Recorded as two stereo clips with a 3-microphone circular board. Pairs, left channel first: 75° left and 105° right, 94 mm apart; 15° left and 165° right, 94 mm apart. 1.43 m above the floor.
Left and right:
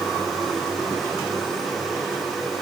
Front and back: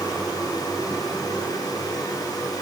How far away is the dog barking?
No dog barking in this recording.